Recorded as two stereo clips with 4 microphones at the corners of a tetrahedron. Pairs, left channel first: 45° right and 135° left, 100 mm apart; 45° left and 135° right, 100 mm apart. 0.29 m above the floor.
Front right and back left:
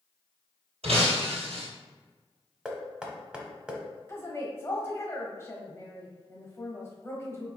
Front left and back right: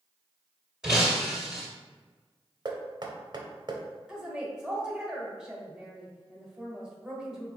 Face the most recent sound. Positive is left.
turn(degrees=-60)